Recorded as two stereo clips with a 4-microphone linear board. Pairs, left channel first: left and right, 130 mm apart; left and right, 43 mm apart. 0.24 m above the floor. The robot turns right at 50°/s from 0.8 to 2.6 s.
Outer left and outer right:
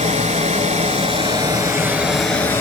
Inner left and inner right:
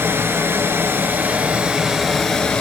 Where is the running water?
70° right, 1.0 m; by 2.6 s 20° left, 1.0 m.